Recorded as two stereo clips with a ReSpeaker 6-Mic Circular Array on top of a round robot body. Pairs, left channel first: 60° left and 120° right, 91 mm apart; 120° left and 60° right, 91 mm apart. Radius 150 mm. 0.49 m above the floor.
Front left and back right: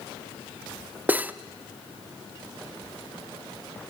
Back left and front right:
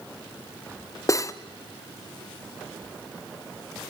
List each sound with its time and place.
1.1 s cutlery clinking: 170° left, 0.7 m